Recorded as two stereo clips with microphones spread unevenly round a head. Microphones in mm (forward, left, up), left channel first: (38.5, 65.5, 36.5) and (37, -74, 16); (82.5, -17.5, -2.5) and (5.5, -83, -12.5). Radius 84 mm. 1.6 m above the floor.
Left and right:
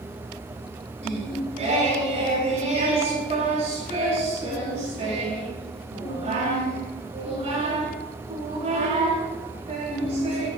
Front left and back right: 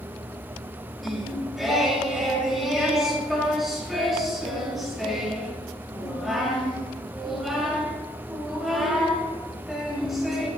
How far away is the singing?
About 7 m.